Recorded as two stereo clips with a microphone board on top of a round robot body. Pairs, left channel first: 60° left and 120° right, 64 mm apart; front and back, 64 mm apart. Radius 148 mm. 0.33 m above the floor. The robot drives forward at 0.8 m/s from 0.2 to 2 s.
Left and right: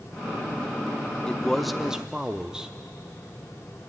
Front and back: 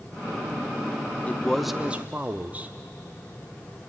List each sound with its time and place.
1.3 s a man speaking: straight ahead, 0.8 m; by 2.8 s straight behind, 0.8 m